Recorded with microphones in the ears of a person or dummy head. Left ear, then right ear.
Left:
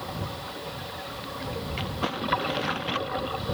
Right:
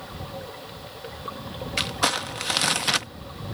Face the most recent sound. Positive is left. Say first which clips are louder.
# right 8 dB
turn(degrees=-70)  # may be behind; listen again after turning